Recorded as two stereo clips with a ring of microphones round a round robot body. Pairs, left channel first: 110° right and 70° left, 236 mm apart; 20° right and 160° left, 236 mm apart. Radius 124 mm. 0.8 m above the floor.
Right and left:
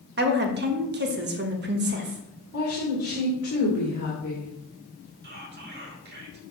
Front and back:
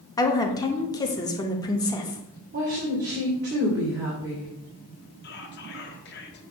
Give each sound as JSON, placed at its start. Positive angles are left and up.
{"t": 0.2, "sound": "a woman speaking", "azimuth_deg": 45, "distance_m": 1.1}
{"t": 2.5, "sound": "a woman speaking", "azimuth_deg": -160, "distance_m": 2.5}
{"t": 5.2, "sound": "whispering", "azimuth_deg": 20, "distance_m": 1.3}